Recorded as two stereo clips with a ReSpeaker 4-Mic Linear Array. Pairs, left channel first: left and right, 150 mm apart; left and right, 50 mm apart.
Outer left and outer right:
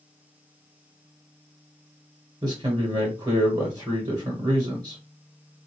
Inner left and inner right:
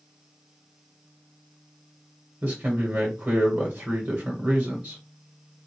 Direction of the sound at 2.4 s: 30° right (ahead or behind).